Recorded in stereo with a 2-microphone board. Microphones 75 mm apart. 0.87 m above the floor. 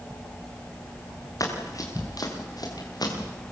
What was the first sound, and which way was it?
Running footsteps, 50° left (ahead or behind).